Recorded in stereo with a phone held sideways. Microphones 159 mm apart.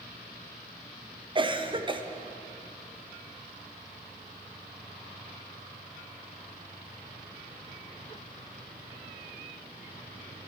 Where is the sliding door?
No sliding door in this recording.